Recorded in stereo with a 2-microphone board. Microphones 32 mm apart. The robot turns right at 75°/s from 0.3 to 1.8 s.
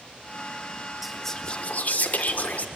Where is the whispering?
5° right, 1.4 m; by 2.6 s 55° left, 1.4 m.